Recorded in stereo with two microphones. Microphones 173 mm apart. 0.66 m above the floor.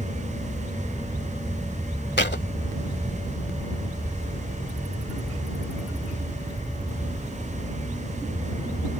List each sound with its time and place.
2.2 s a thud: 85° left